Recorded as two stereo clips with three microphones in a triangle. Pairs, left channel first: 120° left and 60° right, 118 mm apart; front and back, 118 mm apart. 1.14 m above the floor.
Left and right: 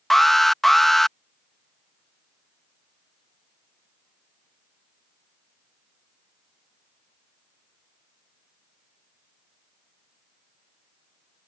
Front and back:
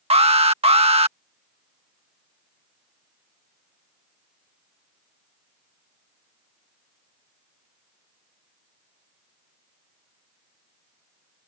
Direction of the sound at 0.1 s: 150° right.